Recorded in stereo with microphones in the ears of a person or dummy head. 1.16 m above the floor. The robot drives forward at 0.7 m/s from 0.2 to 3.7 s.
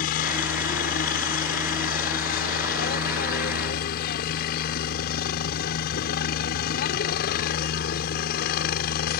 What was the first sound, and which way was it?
A helicopter, 50° left (ahead or behind).